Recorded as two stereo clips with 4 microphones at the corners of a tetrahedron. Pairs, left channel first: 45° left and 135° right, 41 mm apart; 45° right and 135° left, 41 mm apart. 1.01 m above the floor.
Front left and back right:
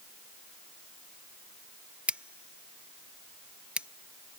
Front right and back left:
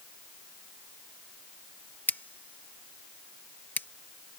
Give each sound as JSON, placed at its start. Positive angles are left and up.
{"t": 2.1, "sound": "scissors", "azimuth_deg": -75}